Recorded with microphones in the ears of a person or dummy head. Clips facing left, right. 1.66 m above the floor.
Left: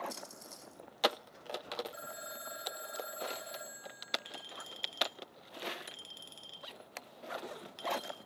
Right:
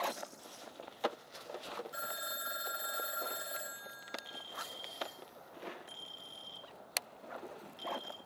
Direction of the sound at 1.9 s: 15° right (ahead or behind).